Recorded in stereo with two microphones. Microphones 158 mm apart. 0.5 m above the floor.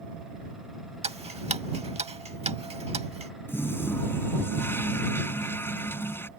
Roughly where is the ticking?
Right.